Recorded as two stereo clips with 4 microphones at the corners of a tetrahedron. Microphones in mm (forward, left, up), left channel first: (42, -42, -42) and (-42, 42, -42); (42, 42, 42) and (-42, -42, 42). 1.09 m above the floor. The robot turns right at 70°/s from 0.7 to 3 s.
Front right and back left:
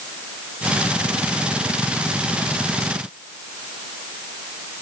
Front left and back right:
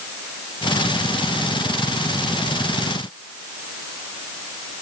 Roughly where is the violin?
No violin in this recording.